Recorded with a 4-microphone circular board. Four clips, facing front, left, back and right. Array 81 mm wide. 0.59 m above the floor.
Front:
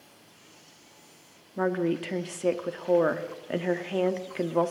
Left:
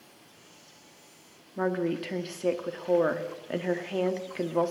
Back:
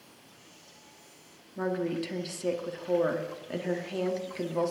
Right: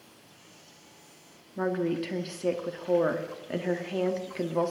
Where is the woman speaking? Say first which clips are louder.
Even, front 4 dB; 15° left, 1.1 m.